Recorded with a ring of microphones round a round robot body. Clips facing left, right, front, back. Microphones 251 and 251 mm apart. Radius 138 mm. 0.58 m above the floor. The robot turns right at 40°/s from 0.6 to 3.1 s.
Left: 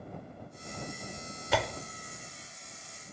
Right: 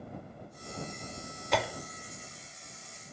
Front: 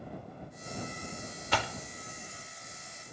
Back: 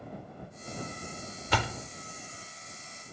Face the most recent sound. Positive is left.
turn(degrees=-120)